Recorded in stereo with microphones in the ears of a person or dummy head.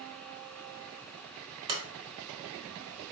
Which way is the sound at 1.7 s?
25° right (ahead or behind).